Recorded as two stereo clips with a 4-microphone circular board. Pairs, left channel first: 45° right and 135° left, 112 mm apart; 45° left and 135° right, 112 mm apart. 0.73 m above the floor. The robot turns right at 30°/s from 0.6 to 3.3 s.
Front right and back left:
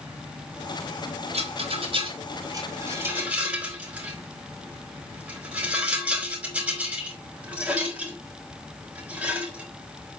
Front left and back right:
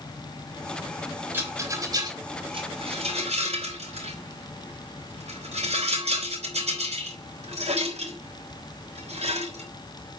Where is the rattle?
155° left, 5 m; by 10.2 s 145° right, 5 m.